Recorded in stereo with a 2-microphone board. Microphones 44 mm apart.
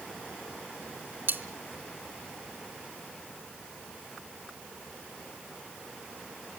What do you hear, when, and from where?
1.3 s cutlery clinking: 60° right (ahead or behind), 1.3 m